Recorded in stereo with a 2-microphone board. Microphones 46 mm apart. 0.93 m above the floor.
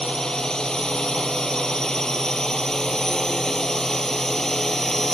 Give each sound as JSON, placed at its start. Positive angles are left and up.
{"t": 0.0, "sound": "a drone", "side_deg": 15}